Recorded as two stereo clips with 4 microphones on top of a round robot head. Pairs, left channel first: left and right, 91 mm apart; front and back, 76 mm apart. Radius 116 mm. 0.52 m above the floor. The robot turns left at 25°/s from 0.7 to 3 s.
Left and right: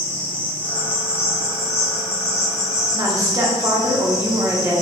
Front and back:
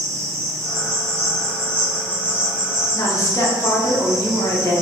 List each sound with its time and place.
0.0 s an insect: 160° left, 1.3 m; by 4.8 s 100° left, 1.3 m
2.9 s a woman speaking: 40° right, 1.1 m; by 4.8 s 45° right, 1.1 m